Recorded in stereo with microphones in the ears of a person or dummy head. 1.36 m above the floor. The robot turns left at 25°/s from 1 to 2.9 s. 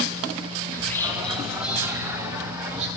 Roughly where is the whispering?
Centre.